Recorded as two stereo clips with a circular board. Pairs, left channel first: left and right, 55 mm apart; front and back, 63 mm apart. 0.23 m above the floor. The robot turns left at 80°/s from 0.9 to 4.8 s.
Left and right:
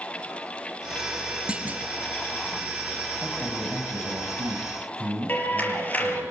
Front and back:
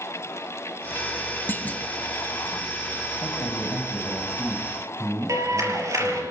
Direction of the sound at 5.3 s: 145° left.